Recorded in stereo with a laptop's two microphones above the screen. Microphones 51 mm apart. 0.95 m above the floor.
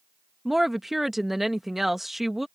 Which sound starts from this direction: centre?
A woman speaking, at 0.5 s.